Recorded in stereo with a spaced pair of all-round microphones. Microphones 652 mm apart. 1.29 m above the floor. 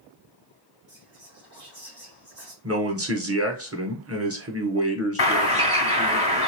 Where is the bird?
35° left (ahead or behind), 1.1 m.